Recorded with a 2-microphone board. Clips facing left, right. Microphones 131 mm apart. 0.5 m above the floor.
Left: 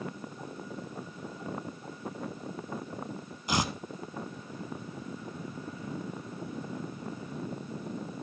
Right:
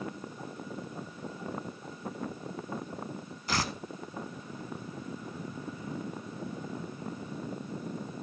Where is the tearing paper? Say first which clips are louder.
Left 2 dB; 20° left (ahead or behind), 0.6 m.